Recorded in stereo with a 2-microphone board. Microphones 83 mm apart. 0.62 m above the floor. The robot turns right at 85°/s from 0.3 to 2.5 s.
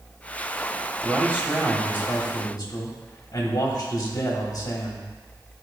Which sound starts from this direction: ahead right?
A man speaking, at 1.0 s.